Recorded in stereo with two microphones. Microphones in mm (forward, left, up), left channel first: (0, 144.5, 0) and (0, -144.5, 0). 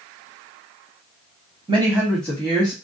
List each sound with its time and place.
1.7 s a woman speaking: 20° right (ahead or behind), 1.0 m; by 2.7 s 20° left (ahead or behind), 1.2 m